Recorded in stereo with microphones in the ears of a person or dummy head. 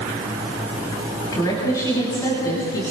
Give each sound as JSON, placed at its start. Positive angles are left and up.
{"t": 1.3, "sound": "a woman speaking", "side_deg": 20, "distance_m": 9.5}